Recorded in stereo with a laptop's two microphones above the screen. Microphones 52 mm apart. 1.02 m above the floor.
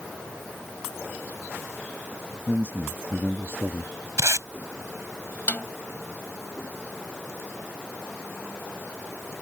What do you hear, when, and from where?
2.5 s a man speaking: 40° right (ahead or behind); by 3.9 s 55° right (ahead or behind)
4.2 s tape being pulled: 70° right (ahead or behind)
5.5 s a snare drum: 40° left (ahead or behind)